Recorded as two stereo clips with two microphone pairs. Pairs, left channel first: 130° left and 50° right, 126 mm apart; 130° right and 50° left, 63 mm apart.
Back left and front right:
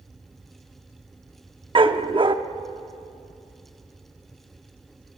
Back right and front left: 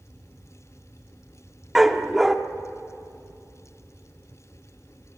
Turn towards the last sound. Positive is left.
turn(degrees=-30)